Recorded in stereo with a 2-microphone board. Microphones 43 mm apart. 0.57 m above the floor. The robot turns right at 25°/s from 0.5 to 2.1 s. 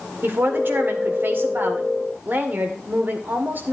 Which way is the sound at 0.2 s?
105° right.